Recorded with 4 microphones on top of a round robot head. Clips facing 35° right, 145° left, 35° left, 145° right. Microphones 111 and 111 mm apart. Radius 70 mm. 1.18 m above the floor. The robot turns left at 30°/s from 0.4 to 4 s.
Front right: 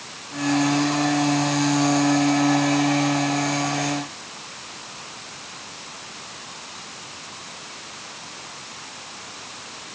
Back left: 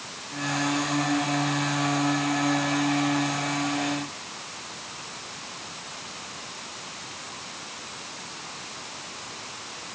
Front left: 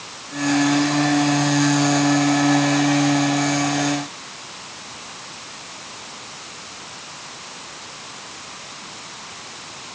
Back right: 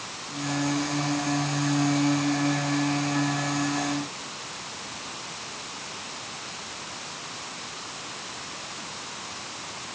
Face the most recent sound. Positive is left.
No sound to turn to.